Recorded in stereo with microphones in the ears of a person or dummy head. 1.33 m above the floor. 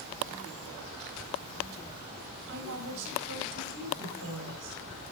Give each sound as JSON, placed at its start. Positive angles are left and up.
{"t": 2.5, "sound": "a woman speaking", "side_deg": -70, "distance_m": 7.5}